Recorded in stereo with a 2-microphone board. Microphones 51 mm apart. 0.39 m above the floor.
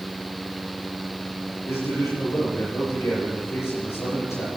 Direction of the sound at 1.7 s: 70° left (ahead or behind).